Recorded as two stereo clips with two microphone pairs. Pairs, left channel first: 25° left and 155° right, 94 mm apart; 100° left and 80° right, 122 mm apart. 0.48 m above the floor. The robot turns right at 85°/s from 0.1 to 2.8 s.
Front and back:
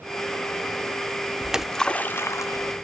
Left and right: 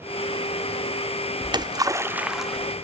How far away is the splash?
About 0.5 m.